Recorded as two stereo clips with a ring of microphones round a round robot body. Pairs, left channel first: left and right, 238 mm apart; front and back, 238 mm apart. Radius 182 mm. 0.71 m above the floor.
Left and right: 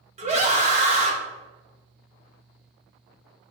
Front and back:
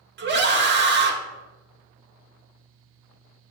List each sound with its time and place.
0.2 s a scream: 150° right, 0.9 m